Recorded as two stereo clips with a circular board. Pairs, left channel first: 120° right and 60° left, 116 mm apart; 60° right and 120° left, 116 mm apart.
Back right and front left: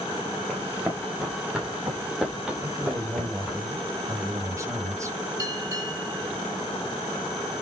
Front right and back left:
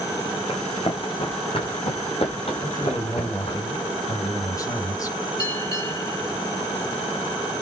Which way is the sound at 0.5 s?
20° right.